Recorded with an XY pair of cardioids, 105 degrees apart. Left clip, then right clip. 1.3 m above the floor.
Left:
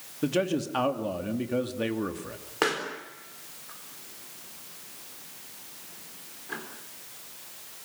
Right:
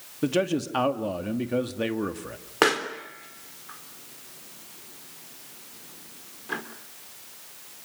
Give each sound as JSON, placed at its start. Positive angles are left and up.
{"t": 0.2, "sound": "a man speaking", "azimuth_deg": -20, "distance_m": 2.5}
{"t": 2.6, "sound": "a pop", "azimuth_deg": -40, "distance_m": 3.5}